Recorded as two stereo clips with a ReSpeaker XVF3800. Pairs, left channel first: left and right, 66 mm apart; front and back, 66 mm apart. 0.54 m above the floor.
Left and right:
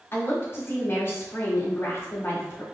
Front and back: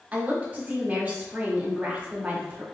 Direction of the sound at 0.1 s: 120° left.